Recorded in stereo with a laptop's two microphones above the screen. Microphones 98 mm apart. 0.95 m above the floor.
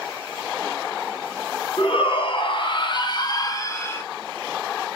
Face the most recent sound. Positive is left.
turn(degrees=20)  # may be behind; listen again after turning